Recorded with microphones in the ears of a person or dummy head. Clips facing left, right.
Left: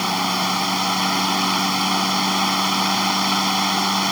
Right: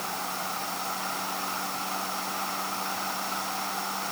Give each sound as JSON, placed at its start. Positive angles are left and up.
{"t": 0.0, "sound": "a fan", "side_deg": 85}